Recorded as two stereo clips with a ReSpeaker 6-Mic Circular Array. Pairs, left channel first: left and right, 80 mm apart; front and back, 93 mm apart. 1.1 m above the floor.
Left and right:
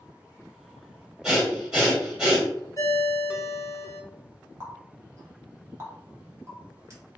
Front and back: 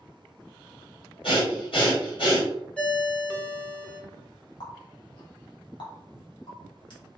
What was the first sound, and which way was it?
Breathing, 10° right.